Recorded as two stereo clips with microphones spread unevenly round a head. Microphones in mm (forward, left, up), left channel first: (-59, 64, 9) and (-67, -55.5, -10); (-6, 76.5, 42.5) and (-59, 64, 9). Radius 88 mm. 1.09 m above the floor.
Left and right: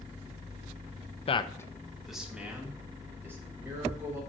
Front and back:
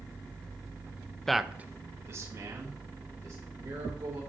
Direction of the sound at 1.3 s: 125° left.